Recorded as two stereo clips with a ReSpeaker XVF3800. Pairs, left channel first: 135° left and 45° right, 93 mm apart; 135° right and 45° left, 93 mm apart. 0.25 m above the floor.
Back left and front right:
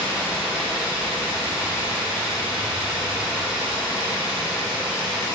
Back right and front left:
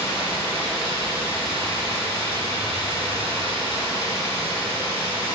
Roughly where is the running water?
Ahead left.